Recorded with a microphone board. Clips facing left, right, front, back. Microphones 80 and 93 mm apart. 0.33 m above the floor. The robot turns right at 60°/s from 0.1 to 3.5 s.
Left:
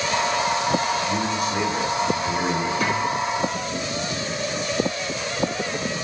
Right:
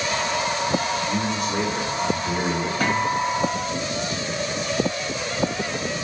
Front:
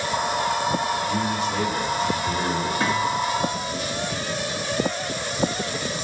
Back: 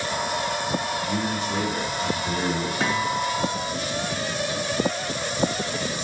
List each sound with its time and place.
0.9 s a man speaking: 95° left, 1.9 m; by 2.7 s 155° right, 1.9 m
2.8 s a guitar: 120° right, 1.4 m; by 3.7 s 75° right, 1.4 m